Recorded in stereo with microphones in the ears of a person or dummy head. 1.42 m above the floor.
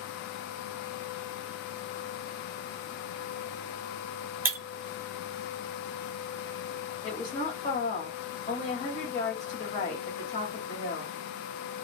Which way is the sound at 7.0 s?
35° left (ahead or behind).